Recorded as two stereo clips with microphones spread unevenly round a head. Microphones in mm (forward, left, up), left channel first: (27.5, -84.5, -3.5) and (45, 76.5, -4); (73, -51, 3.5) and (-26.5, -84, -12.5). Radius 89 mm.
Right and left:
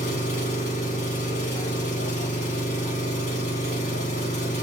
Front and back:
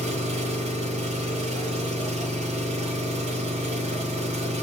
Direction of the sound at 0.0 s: 150° right.